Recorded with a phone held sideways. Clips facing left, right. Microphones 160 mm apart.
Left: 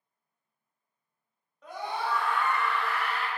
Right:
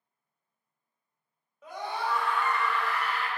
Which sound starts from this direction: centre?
A scream, at 1.6 s.